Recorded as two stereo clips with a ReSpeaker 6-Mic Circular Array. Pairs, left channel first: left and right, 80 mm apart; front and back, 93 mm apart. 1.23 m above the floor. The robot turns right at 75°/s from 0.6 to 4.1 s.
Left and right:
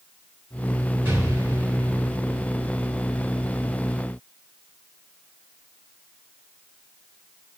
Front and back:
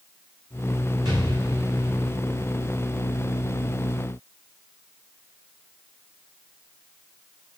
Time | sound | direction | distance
1.1 | an explosion | 150° right | 7 m